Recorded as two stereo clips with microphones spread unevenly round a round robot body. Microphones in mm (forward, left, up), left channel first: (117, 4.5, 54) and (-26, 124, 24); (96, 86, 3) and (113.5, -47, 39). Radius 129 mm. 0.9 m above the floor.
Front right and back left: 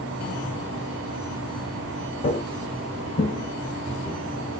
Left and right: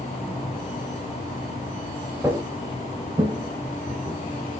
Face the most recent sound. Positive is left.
turn(degrees=-100)